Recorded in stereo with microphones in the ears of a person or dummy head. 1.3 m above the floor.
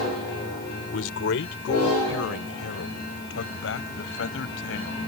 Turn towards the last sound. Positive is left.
turn(degrees=75)  # may be behind; listen again after turning